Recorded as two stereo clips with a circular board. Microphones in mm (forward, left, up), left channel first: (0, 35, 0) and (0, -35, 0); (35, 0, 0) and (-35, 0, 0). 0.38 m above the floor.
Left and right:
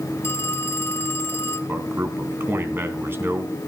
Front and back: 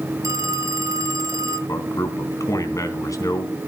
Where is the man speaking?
35° right, 3 m.